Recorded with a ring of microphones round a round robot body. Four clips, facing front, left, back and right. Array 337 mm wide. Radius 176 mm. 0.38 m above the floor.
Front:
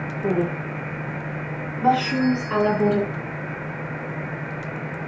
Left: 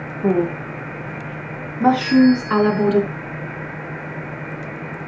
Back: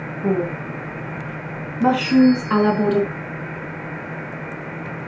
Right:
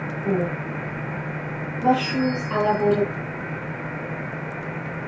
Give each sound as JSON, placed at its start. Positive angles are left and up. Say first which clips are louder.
{"t": 0.2, "sound": "a woman speaking", "louder": "left 6 dB, back 2 dB", "azimuth_deg": 95, "distance_m": 3.5}
{"t": 2.0, "sound": "a bell", "louder": "left 10 dB, back 7 dB", "azimuth_deg": 75, "distance_m": 2.0}